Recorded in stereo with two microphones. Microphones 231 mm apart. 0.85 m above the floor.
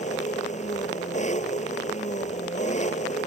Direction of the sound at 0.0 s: 30° left (ahead or behind).